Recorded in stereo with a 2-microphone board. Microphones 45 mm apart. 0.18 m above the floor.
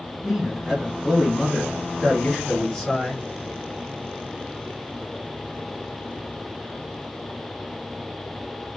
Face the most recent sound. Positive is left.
turn(degrees=20)  # may be behind; listen again after turning